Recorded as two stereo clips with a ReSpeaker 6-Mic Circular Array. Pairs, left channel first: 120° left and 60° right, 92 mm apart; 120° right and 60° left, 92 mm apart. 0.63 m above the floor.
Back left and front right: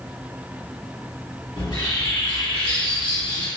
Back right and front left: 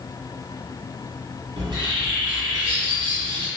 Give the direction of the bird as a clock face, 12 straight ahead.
9 o'clock.